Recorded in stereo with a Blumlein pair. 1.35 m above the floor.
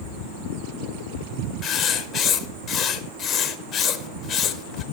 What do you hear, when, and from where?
1.6 s writing: 30° left, 0.8 m